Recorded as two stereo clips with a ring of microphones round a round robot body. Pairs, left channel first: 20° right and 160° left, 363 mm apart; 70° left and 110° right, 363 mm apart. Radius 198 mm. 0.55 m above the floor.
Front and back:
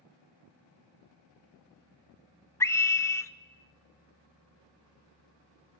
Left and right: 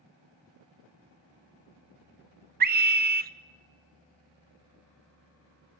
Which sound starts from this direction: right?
A scream, at 2.6 s.